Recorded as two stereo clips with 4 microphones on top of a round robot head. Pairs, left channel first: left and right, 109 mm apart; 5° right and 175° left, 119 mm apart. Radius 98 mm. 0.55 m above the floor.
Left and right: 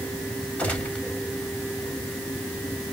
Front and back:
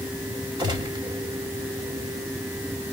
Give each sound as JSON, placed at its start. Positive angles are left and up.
{"t": 0.6, "sound": "a gunshot", "azimuth_deg": 160, "distance_m": 1.5}